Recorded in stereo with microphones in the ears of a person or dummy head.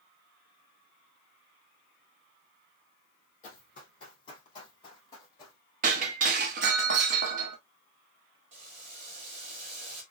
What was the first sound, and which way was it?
Running footsteps, 35° left (ahead or behind).